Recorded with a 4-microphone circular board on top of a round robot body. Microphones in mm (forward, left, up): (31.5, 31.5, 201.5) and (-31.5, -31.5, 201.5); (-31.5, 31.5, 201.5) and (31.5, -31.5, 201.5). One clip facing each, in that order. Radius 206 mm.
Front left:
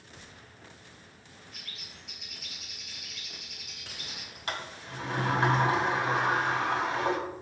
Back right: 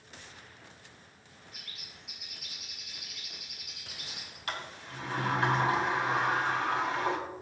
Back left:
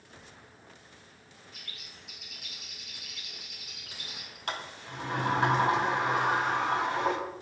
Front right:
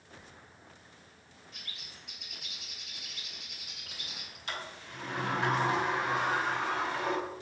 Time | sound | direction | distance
1.5 | a bird | 55° right | 2.5 m
4.5 | a sliding door | 105° left | 2 m